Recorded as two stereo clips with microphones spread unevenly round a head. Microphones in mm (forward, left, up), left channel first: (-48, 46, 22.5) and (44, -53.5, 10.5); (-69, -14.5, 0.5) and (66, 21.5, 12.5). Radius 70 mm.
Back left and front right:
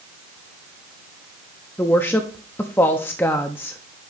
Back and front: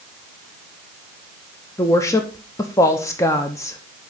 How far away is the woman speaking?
About 0.6 m.